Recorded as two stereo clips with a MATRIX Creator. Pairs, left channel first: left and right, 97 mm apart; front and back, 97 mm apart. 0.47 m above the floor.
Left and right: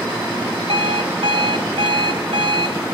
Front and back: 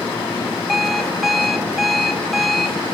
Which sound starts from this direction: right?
An alarm clock, at 0.7 s.